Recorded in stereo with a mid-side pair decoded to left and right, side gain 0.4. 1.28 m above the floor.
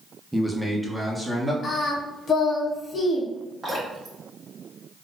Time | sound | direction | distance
0.3 | a man speaking | 5° right | 0.6 m
1.6 | singing | 50° left | 0.9 m
3.6 | dripping | 35° right | 1.8 m